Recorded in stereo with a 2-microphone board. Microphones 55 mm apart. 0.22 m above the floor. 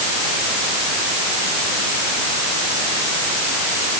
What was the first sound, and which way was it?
Only background noise.